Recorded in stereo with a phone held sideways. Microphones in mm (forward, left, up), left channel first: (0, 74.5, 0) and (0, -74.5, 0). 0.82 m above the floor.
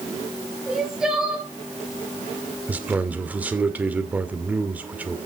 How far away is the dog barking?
I don't hear a dog barking.